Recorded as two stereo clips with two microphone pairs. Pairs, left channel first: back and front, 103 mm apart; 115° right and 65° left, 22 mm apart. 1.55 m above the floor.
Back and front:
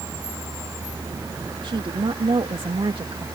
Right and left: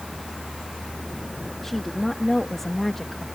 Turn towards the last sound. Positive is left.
turn(degrees=-35)